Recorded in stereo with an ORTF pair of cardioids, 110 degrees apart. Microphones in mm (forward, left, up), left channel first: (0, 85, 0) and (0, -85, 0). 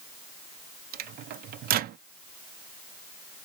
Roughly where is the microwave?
Ahead right.